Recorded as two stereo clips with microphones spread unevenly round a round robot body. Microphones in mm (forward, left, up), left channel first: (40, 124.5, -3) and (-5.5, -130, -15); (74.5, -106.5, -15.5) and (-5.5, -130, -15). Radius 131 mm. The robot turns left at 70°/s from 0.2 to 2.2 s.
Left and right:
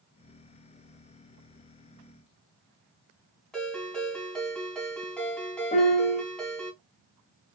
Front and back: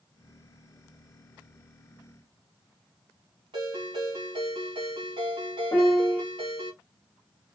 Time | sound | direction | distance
3.5 | a ringtone | 165° left | 3.5 m
5.7 | a piano | 55° left | 0.9 m